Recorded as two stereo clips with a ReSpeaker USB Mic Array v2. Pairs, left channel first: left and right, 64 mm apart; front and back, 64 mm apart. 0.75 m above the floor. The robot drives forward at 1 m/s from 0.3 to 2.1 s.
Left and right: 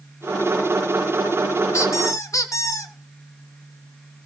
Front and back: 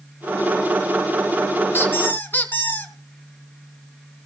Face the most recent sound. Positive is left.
turn(degrees=60)